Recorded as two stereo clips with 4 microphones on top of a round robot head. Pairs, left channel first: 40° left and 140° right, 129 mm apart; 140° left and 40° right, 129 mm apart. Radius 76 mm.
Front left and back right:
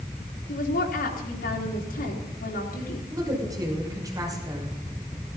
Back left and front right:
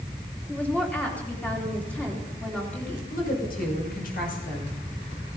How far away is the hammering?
No hammering in this recording.